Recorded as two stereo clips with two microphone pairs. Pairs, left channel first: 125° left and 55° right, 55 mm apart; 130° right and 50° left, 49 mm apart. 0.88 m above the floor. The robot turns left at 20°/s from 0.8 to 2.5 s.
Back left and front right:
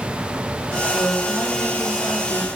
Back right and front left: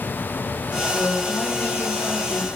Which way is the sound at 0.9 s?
170° right.